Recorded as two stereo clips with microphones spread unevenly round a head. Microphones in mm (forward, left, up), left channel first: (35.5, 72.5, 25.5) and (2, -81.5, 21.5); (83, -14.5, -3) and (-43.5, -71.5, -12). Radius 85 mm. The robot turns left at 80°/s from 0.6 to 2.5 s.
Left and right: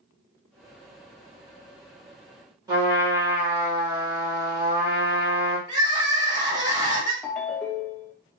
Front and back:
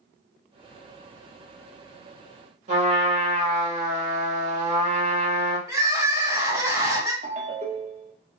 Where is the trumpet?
160° right, 1.3 m.